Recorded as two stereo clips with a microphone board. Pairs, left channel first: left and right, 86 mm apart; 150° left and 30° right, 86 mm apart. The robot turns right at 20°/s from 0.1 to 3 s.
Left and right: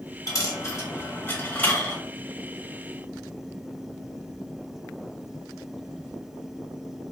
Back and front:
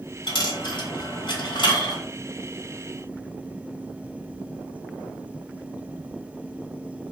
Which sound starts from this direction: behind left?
A dropped coin, at 0.3 s.